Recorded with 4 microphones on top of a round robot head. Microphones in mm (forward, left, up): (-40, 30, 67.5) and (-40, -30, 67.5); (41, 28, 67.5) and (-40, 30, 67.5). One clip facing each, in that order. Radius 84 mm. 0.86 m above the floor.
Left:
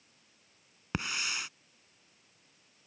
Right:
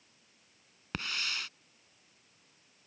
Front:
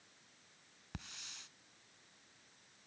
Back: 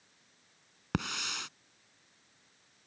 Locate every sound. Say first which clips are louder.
0.9 s a hiss: left 2 dB, back 18 dB; 165° left